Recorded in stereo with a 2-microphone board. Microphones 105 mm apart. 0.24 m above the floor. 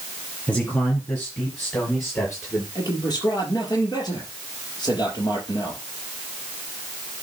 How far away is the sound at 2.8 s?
About 4.5 m.